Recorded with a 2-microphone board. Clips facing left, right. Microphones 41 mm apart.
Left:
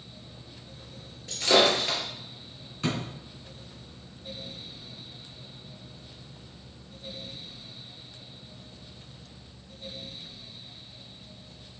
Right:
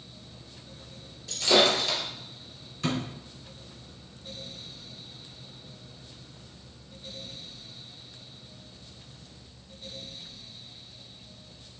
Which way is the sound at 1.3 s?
35° left (ahead or behind).